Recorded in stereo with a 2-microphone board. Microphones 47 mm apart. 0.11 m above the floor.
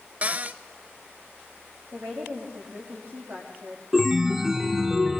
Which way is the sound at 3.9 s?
10° right (ahead or behind).